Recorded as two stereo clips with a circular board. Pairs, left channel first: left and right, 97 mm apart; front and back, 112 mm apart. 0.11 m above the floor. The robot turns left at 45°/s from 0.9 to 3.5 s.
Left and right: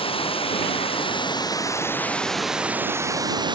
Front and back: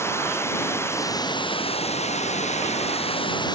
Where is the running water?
70° left; by 3.5 s 50° right.